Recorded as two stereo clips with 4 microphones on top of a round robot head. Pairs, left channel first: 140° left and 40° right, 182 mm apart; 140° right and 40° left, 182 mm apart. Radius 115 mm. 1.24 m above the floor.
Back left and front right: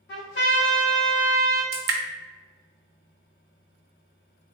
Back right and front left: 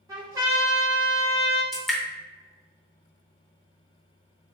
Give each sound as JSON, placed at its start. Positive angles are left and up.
{"t": 0.1, "sound": "a trumpet", "azimuth_deg": 110, "distance_m": 1.2}
{"t": 1.7, "sound": "dripping", "azimuth_deg": -55, "distance_m": 0.6}